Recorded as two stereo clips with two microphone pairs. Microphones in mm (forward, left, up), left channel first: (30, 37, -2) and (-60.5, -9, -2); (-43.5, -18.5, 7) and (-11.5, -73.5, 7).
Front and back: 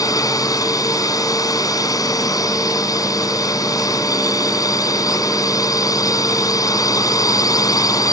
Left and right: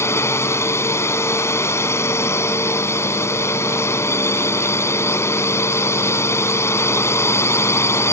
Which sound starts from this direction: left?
A drone, at 0.0 s.